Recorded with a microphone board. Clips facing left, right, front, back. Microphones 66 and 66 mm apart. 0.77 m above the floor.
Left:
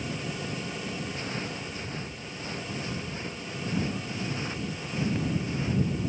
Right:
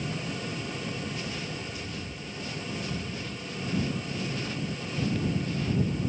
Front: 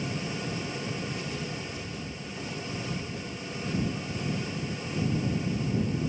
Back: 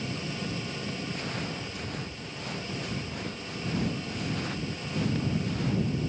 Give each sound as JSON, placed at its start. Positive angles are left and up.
{"t": 1.1, "sound": "footsteps", "azimuth_deg": 145}